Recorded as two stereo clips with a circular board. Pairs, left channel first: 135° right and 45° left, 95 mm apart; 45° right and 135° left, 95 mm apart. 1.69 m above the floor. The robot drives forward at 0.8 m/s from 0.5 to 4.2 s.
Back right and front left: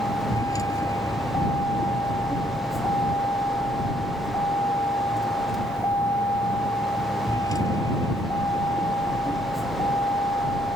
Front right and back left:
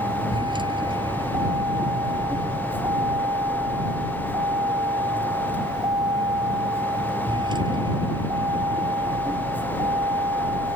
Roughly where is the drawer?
I don't hear a drawer.